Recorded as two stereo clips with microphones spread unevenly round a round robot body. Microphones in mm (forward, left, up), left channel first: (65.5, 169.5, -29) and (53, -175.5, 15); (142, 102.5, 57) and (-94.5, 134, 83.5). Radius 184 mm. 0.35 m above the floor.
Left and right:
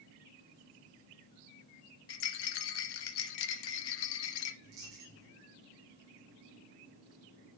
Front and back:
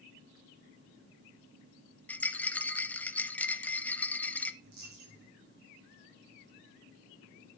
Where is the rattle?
75° left, 0.7 m.